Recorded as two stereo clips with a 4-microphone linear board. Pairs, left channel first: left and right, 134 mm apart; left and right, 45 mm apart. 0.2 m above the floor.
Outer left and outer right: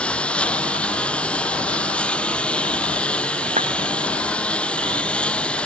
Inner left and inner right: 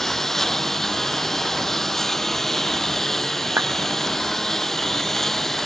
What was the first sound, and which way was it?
A lawn mower, 10° left (ahead or behind).